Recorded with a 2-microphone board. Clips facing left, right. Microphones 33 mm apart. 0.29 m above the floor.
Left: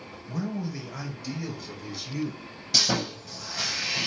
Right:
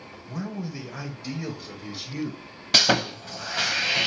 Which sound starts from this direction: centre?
A man speaking, at 0.3 s.